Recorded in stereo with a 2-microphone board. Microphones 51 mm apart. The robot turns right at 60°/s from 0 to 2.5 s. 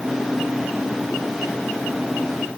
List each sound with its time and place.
Only background noise.